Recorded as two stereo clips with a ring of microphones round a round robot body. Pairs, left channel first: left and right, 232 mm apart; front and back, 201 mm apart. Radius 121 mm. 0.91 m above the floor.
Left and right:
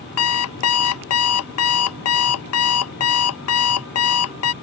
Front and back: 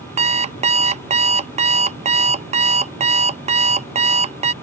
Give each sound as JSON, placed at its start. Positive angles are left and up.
{"t": 0.2, "sound": "an alarm clock", "azimuth_deg": 120}